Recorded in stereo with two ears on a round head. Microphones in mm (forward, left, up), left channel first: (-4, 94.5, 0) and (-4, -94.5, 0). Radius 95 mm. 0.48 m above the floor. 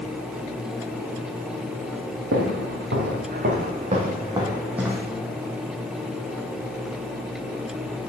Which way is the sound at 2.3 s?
65° right (ahead or behind).